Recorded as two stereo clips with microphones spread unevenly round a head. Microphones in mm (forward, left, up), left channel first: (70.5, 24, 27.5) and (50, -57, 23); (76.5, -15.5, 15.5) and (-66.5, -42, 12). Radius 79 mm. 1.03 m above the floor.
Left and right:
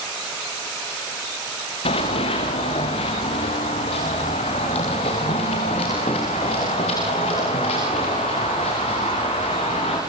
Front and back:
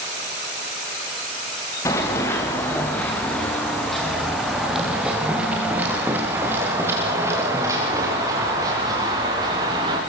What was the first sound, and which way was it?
Running footsteps, 85° left.